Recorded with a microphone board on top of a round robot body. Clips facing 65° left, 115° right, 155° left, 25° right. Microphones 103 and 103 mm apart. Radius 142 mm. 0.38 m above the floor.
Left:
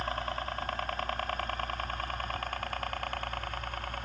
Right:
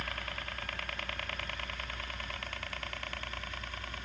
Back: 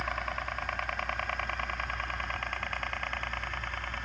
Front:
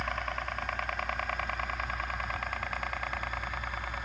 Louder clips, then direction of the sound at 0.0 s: Left 7 dB, even; 70° left.